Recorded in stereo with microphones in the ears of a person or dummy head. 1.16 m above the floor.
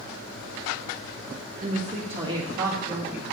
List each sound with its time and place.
1.6 s a woman speaking: 35° right (ahead or behind), 1.4 m; by 3.2 s centre (ahead or behind), 2.5 m